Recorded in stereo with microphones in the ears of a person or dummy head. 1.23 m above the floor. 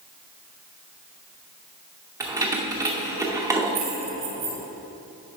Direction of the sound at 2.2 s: 15° right (ahead or behind).